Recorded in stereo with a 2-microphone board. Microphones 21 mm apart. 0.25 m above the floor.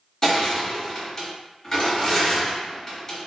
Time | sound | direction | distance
0.2 | crushing | 20° left (ahead or behind) | 1.3 m